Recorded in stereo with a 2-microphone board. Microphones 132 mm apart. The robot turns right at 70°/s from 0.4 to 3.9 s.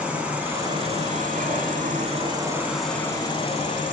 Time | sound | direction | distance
0.0 | an insect | 170° right | 0.8 m